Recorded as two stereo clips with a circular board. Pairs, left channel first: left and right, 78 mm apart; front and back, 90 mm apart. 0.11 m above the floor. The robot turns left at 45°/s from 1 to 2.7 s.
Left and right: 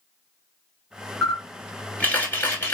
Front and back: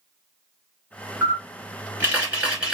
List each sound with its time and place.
1.2 s a camera shutter: 175° left, 1.6 m; by 2.8 s 105° left, 1.6 m